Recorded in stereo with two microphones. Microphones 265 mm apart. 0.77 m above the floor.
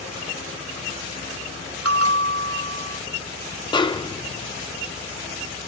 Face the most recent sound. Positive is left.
turn(degrees=15)  # may be behind; listen again after turning